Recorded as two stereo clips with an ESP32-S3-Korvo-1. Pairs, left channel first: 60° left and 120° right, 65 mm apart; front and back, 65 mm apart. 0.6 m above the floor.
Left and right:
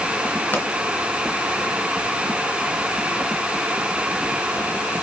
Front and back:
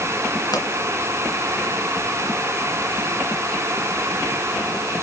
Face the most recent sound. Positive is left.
turn(degrees=0)